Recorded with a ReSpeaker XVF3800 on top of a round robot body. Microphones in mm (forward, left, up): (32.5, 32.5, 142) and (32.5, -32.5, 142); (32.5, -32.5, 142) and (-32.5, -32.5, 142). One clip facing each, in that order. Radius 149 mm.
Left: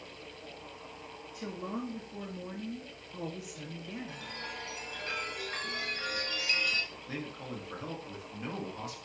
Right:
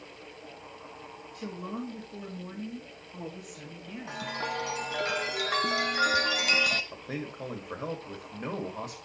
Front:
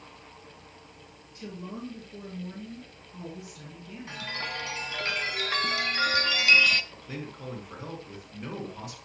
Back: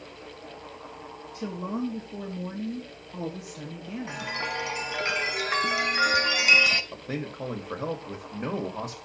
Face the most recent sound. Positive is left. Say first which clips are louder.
# right 3 dB, back 6 dB
turn(degrees=-150)